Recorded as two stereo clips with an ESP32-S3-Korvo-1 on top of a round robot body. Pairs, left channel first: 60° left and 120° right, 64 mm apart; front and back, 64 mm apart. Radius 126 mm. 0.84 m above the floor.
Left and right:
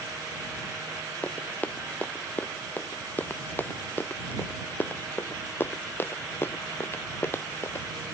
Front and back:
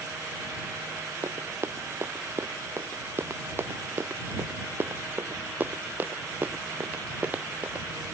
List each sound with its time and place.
1.2 s running footsteps: 130° left; by 7.9 s 115° left